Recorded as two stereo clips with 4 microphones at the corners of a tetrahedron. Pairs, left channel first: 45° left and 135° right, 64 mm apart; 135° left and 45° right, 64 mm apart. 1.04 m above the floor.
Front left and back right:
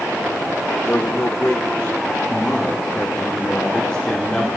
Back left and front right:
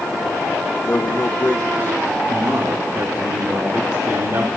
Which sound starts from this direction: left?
A man speaking, at 0.8 s.